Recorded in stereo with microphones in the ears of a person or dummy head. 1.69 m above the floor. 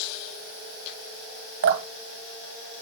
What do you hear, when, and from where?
1.6 s dripping: 65° right (ahead or behind), 1.0 m